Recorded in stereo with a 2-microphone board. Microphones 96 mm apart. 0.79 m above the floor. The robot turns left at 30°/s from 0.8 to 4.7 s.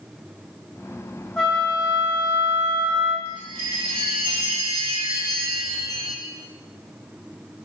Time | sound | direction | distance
1.4 | a flute | 5° left | 1.5 m
3.2 | a chime | 70° right | 2 m